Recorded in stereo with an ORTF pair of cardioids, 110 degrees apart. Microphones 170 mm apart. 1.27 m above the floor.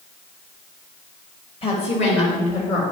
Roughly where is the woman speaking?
Ahead left.